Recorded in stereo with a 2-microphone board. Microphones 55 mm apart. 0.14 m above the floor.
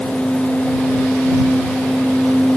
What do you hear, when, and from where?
Only background noise.